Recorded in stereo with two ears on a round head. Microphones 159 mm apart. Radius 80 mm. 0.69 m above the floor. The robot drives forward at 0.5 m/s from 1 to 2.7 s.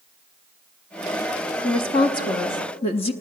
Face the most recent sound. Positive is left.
turn(degrees=30)  # may be behind; listen again after turning